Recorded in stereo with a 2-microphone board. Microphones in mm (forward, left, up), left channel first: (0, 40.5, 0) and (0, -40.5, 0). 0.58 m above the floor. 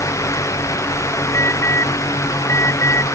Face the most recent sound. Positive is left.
turn(degrees=30)  # may be behind; listen again after turning